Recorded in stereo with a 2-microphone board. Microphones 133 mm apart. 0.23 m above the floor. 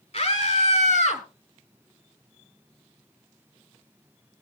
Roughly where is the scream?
Left.